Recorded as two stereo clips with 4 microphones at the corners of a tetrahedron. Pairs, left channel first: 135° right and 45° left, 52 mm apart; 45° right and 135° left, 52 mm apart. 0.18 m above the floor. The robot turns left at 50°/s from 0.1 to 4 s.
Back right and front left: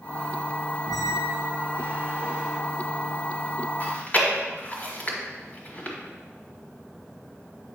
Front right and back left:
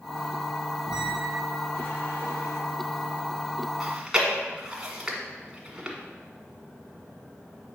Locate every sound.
0.9 s a squeak: 60° left, 1.4 m; by 2.6 s 30° right, 1.4 m
3.8 s chewing: 145° right, 1.4 m; by 6.0 s 155° right, 1.4 m